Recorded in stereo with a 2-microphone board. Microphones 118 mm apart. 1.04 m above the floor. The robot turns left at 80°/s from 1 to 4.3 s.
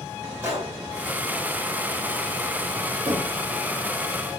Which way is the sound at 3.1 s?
75° right (ahead or behind).